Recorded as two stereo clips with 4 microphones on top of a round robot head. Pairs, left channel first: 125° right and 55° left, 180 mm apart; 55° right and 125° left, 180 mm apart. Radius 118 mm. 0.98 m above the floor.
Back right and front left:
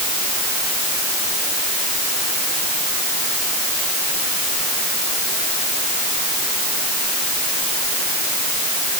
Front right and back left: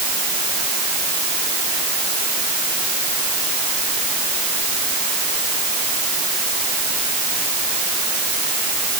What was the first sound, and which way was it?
Only background noise.